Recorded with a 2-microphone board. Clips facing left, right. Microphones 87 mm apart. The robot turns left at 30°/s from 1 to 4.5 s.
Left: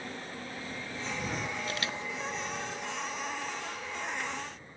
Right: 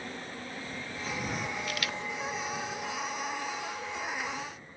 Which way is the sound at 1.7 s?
35° left (ahead or behind).